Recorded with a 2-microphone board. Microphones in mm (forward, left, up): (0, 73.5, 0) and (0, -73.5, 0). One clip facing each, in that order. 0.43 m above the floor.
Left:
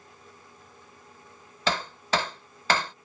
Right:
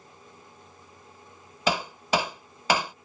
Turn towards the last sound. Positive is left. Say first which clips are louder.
# right 2 dB
turn(degrees=-15)  # may be behind; listen again after turning